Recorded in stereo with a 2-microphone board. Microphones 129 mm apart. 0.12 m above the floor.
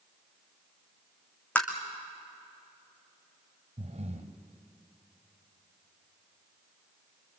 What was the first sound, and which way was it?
Tapping, 10° left (ahead or behind).